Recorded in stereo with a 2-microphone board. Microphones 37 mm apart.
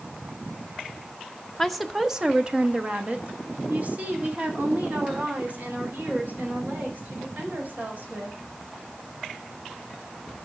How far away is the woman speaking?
About 0.8 m.